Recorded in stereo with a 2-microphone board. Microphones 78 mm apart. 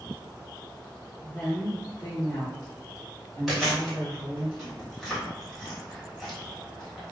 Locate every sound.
1.2 s a woman speaking: 5° left (ahead or behind), 1.0 m; by 4.5 s 50° left (ahead or behind), 2.0 m
3.5 s chewing: 5° left (ahead or behind), 1.6 m